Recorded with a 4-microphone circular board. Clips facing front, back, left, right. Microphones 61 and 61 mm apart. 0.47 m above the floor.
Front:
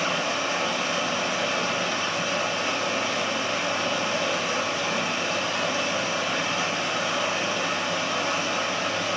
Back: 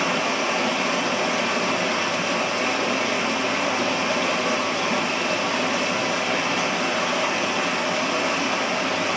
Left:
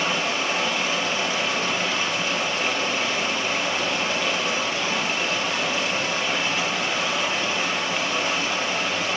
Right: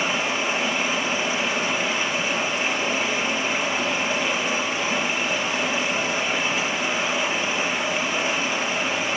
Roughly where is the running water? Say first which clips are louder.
Back 3 dB, even; behind.